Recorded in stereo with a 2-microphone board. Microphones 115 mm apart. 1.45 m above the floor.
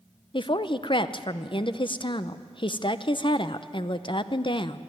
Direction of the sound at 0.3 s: 45° left (ahead or behind).